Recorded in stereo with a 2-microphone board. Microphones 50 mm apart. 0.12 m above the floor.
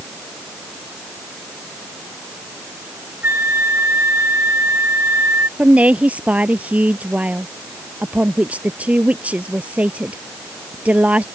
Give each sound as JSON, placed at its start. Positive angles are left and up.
{"t": 3.2, "sound": "a flute", "side_deg": -50}
{"t": 5.6, "sound": "a woman speaking", "side_deg": -30}